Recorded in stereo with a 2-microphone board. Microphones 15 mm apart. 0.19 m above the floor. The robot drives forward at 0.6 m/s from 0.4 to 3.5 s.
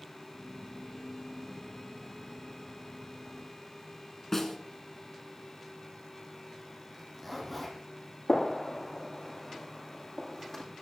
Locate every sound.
4.3 s a snare drum: 20° left (ahead or behind), 1.9 m
6.9 s a zipper: 10° left (ahead or behind), 4.5 m
8.3 s a gunshot: 25° left (ahead or behind), 8.5 m